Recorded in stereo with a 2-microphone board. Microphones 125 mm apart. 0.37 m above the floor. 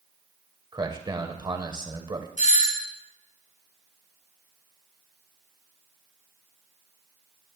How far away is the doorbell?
About 5 m.